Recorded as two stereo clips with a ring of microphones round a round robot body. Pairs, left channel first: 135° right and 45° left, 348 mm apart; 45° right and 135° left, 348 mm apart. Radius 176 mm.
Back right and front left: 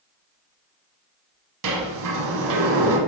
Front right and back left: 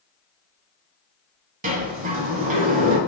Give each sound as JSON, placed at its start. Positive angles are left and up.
{"t": 1.6, "sound": "a sliding door", "azimuth_deg": 70, "distance_m": 0.9}